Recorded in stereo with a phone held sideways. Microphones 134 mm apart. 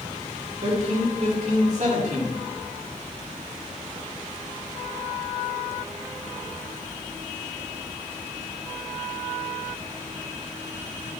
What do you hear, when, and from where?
0.6 s a man speaking: 55° right (ahead or behind), 3 m